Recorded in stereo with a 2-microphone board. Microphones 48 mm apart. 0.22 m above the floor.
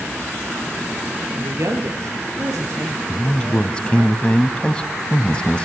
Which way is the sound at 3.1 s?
20° left (ahead or behind).